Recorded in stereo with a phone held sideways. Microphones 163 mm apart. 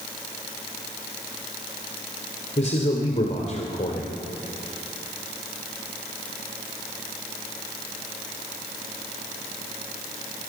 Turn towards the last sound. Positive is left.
turn(degrees=45)  # may be behind; listen again after turning